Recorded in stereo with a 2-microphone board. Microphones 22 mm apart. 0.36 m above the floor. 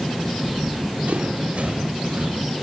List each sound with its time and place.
0.5 s running footsteps: 80° right, 4 m; by 2.4 s 70° right (ahead or behind), 6.5 m